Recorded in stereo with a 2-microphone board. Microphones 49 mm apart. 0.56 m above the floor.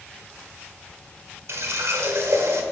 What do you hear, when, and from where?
1.5 s a running tap: 70° right (ahead or behind), 1.3 m